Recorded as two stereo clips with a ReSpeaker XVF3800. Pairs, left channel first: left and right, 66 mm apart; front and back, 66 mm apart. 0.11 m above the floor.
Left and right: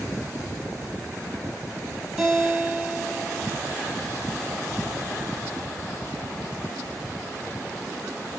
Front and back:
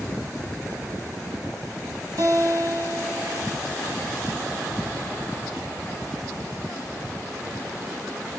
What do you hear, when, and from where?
2.2 s a guitar: 165° right, 1.5 m